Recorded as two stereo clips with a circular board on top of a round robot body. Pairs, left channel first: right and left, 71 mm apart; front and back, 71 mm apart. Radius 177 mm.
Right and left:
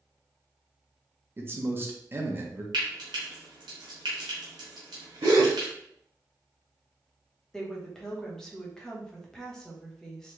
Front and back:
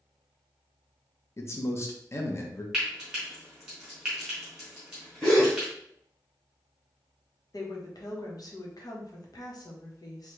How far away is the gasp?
About 0.6 m.